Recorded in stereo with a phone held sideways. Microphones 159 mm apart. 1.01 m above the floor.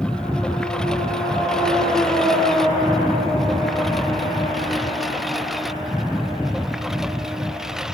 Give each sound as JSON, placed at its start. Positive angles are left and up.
{"t": 0.0, "sound": "a lawn mower", "side_deg": 5}